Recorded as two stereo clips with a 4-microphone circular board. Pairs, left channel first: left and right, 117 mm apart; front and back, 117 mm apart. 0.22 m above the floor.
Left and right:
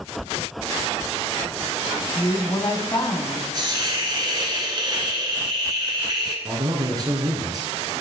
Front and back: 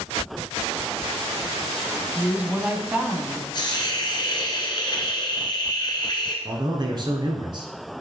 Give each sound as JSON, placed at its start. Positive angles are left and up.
{"t": 2.1, "sound": "a woman speaking", "azimuth_deg": 110, "distance_m": 1.5}
{"t": 3.5, "sound": "a hiss", "azimuth_deg": -45, "distance_m": 2.0}
{"t": 6.5, "sound": "a man speaking", "azimuth_deg": -140, "distance_m": 2.0}